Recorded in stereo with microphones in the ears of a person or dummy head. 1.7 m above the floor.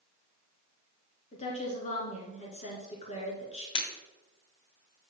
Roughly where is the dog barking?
No dog barking in this recording.